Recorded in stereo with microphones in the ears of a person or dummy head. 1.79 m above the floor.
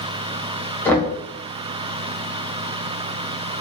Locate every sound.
0.8 s knocking: 10° left (ahead or behind), 0.8 m